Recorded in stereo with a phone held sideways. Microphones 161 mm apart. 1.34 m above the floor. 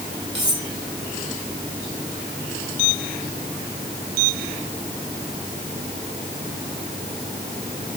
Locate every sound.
0.3 s cutlery clinking: 25° right (ahead or behind), 8.5 m